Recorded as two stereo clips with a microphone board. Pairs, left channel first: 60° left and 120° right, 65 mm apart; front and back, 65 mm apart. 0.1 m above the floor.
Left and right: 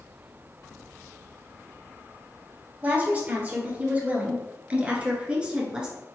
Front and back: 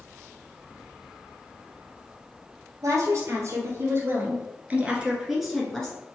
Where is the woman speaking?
Straight behind, 1.9 m; by 6.0 s 55° right, 1.2 m.